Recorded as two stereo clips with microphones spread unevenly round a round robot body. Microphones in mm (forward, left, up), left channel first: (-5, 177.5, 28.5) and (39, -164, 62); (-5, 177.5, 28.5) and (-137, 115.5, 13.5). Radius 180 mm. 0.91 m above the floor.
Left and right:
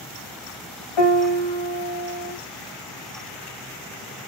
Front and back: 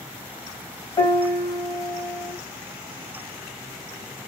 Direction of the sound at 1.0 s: 85° left.